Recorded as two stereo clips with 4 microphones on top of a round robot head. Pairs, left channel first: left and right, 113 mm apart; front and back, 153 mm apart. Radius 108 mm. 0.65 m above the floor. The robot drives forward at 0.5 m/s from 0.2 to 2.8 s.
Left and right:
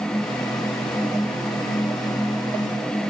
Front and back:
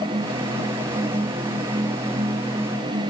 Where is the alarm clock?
I don't hear an alarm clock.